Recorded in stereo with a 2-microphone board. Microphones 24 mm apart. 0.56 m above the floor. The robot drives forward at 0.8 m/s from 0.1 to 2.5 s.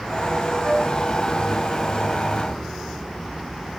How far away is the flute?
About 1.2 m.